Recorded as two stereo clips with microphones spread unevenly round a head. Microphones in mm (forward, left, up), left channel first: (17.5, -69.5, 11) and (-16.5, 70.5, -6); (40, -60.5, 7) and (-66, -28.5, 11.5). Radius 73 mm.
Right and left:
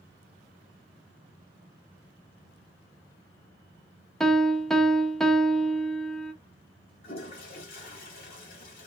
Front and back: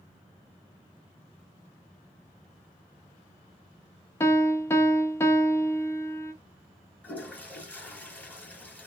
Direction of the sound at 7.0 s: 95° right.